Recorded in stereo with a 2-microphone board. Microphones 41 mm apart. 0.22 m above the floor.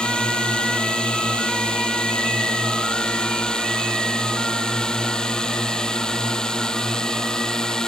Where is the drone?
20° left (ahead or behind); by 7.9 s 15° left (ahead or behind).